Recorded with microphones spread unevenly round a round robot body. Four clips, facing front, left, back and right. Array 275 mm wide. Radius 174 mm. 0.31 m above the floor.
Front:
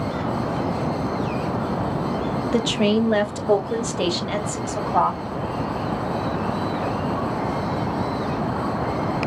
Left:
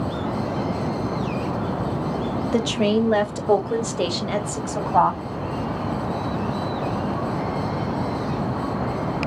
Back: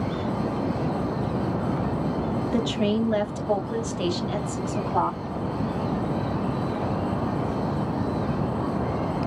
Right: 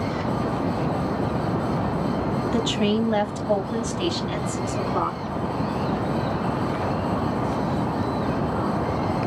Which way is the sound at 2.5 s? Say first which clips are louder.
Left 4 dB, front 5 dB; 60° left.